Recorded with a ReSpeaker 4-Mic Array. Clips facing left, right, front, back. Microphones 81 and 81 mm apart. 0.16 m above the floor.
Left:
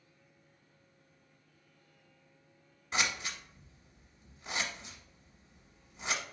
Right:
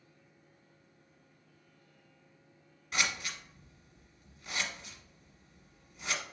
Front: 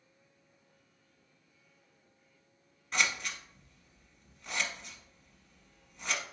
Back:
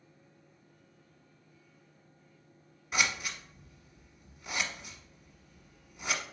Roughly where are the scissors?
Left.